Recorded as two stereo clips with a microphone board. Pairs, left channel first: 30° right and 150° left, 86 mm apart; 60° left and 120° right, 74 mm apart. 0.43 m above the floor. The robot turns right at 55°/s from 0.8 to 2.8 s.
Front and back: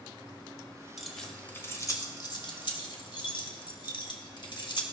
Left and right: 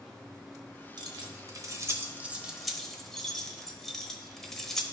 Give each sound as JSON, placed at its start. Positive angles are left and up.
{"t": 1.0, "sound": "keys jangling", "azimuth_deg": -125, "distance_m": 1.0}